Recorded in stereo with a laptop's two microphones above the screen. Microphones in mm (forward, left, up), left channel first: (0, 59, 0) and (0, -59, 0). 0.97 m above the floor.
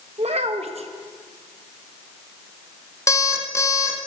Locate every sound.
0.2 s a child speaking: 60° right (ahead or behind), 0.9 m
3.1 s an alarm clock: 25° left (ahead or behind), 2 m